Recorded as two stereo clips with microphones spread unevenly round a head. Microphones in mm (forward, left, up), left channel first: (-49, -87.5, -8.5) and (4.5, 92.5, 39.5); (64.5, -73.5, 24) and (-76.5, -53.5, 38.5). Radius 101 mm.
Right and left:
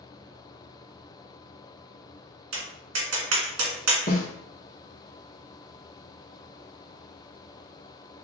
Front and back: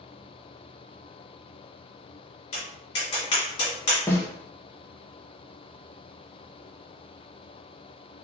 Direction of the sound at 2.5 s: 45° left.